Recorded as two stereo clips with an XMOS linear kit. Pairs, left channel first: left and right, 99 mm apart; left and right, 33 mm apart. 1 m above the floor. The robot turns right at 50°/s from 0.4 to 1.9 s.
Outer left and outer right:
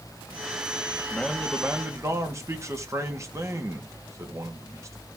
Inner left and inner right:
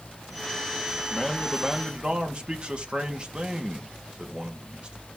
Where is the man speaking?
170° left, 2 m; by 5.0 s 150° right, 2 m.